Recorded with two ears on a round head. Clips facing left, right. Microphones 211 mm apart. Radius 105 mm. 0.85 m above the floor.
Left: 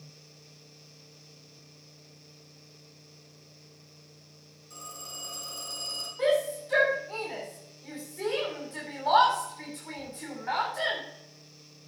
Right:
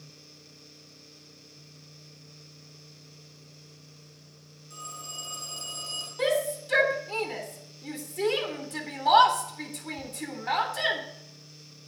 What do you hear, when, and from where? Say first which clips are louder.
4.7 s a phone ringing: even; centre (ahead or behind), 7 m
6.2 s a shout: left 1 dB; 55° right (ahead or behind), 3.5 m